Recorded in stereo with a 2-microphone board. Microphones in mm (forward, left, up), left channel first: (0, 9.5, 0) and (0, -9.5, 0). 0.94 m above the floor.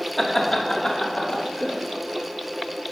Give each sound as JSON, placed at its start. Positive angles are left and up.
{"t": 0.2, "sound": "laughter", "side_deg": 15, "distance_m": 1.5}